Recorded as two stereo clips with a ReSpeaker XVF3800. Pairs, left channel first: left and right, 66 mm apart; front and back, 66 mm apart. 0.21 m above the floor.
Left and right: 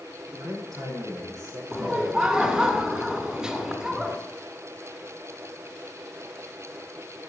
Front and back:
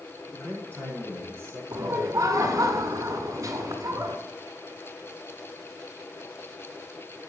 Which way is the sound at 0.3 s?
60° right.